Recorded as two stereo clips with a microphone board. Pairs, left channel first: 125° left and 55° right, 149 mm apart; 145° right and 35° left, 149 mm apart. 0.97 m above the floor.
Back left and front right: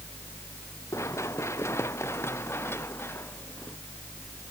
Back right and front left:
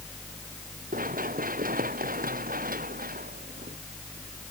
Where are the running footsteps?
55° left; by 3.8 s 50° left.